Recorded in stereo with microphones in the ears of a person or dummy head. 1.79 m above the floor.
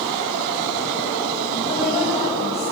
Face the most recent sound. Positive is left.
turn(degrees=35)  # may be behind; listen again after turning